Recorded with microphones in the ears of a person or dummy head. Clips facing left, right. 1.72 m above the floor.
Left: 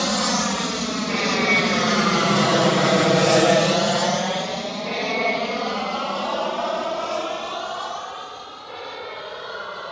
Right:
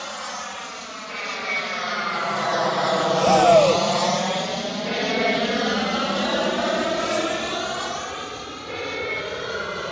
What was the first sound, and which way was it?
An aircraft, 70° left (ahead or behind).